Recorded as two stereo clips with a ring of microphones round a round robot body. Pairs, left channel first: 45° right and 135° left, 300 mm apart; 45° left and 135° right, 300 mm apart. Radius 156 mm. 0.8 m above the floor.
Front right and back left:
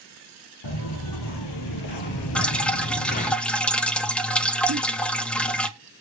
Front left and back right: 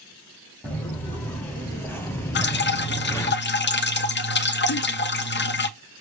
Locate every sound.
0.6 s footsteps: 40° right, 1.9 m; by 3.4 s 20° right, 0.8 m
2.4 s dripping: 40° left, 0.9 m
4.7 s a giggle: 85° left, 1.1 m